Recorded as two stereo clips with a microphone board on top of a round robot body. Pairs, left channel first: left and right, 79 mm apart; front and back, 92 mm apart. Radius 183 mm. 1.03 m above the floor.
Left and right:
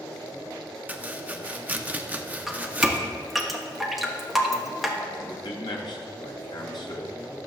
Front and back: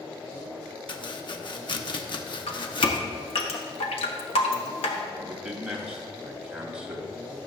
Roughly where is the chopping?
Ahead.